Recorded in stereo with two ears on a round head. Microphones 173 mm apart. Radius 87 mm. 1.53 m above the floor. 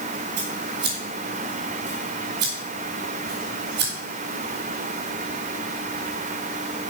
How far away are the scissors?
About 3.5 m.